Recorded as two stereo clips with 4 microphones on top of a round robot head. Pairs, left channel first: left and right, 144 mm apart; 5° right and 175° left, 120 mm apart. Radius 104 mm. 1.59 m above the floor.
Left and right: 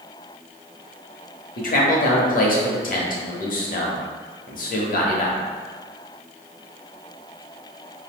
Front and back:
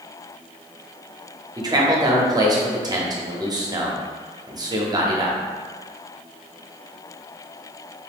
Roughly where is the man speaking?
Behind left.